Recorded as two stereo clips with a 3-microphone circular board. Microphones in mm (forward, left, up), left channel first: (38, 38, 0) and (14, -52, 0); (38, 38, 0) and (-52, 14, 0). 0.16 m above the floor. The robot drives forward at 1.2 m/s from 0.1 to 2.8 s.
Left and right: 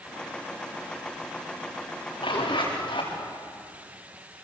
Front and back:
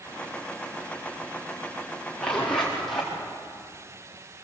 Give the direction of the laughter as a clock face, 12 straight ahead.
I don't hear laughter.